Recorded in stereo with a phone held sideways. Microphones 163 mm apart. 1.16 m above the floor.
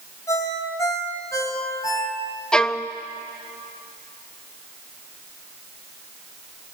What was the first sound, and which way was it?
A ringtone, 20° left (ahead or behind).